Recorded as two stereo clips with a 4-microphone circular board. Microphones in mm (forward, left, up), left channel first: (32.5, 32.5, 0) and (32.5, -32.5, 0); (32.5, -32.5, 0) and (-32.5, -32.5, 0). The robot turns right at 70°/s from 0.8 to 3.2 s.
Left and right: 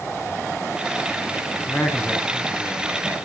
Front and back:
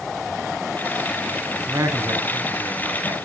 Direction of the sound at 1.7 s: 130° left.